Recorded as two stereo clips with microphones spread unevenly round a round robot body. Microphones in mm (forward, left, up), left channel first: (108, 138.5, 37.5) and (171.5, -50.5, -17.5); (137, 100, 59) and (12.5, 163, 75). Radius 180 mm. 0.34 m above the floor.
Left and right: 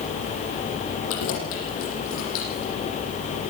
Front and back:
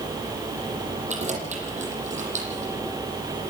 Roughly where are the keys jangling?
Behind left.